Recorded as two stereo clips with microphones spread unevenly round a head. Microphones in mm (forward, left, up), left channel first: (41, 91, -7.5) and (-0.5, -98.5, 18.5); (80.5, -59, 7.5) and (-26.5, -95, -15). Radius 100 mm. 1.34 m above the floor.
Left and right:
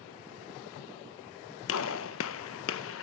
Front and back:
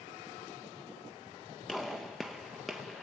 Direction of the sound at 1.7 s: 105° left.